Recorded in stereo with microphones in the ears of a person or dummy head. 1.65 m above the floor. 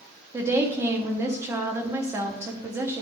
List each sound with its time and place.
0.3 s a woman speaking: 10° right (ahead or behind), 0.9 m